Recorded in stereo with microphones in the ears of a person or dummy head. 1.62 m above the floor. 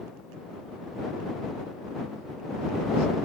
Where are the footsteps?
No footsteps in this recording.